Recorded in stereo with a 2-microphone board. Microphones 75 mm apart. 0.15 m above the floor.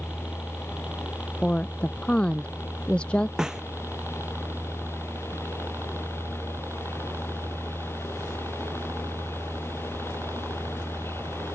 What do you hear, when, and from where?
0.0 s a helicopter: 10° right (ahead or behind); by 11.6 s 40° right (ahead or behind)
1.4 s a woman speaking: 15° left (ahead or behind)
3.4 s a snare drum: 10° right (ahead or behind)